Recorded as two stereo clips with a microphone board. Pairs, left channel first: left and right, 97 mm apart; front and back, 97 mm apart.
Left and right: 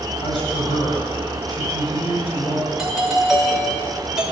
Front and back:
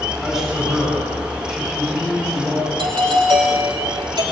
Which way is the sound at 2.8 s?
175° right.